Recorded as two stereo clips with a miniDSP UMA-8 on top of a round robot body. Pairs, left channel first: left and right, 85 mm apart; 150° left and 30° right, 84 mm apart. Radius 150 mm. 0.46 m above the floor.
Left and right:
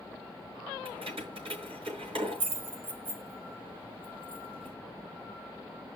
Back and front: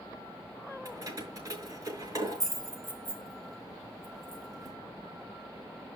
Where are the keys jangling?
80° right, 5.5 m.